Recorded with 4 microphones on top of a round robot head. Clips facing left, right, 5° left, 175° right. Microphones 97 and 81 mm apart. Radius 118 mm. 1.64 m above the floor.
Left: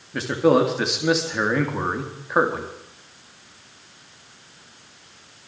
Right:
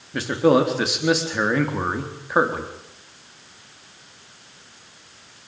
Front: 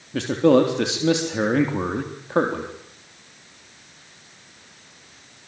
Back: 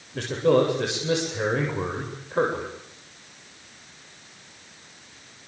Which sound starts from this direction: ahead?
A man speaking, at 0.1 s.